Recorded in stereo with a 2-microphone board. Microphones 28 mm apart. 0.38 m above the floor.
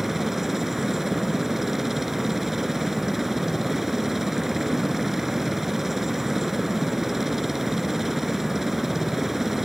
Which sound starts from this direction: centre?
A helicopter, at 0.0 s.